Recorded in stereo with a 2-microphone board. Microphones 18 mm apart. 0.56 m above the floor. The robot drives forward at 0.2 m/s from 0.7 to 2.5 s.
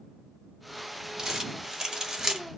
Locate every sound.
1.2 s crumpling: 35° right (ahead or behind), 1.5 m